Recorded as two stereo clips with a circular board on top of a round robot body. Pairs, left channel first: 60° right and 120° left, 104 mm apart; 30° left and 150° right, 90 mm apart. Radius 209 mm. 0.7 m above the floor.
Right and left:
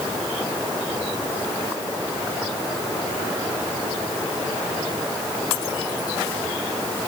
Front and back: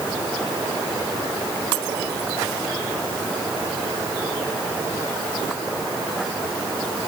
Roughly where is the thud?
I don't hear a thud.